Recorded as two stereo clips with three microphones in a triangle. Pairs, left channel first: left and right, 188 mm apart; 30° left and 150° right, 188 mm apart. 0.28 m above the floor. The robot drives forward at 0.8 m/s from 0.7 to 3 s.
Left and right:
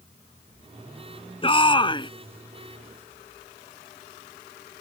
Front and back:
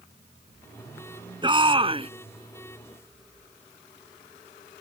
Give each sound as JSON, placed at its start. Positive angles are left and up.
{"t": 1.4, "sound": "a shout", "azimuth_deg": 150}